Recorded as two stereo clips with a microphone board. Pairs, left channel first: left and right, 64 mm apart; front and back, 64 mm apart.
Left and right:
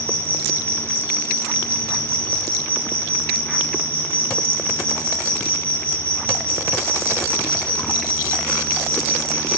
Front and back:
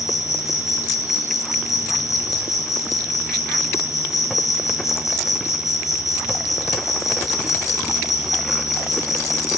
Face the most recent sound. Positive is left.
turn(degrees=25)